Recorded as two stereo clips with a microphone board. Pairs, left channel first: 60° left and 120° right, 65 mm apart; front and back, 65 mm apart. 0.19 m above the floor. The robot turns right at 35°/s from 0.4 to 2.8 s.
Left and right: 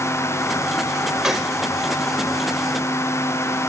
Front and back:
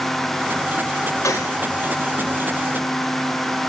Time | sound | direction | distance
1.2 | a gunshot | 40° right | 5.5 m